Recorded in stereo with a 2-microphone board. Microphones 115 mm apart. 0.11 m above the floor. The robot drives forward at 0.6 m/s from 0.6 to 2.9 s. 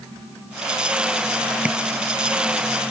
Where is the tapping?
10° right (ahead or behind), 0.6 m.